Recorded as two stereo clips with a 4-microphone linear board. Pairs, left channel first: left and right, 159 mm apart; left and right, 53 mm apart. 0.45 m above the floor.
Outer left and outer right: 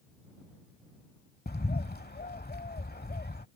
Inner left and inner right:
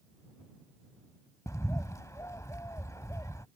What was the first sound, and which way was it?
A bird, 85° left.